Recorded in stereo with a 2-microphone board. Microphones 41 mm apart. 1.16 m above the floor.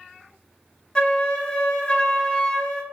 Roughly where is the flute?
Left.